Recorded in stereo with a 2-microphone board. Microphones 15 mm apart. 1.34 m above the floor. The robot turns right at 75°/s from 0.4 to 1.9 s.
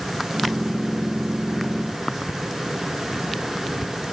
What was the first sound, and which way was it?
Only background noise.